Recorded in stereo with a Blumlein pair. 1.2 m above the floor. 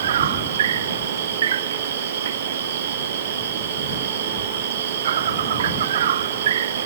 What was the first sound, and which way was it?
An insect, 60° right.